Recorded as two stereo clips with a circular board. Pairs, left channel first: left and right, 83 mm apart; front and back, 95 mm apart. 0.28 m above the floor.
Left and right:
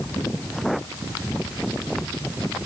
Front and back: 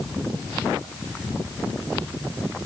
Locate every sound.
Only background noise.